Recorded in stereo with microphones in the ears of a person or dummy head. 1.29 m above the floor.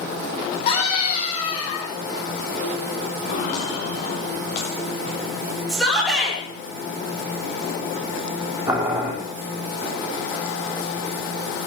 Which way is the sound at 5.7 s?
Centre (ahead or behind).